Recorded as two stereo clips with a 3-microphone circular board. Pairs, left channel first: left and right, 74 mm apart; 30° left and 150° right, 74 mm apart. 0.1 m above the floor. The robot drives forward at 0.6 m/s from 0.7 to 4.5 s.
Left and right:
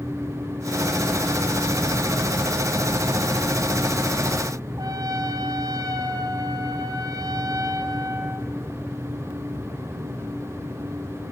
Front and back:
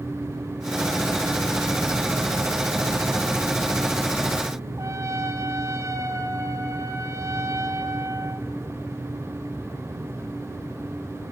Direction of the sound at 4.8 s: 110° right.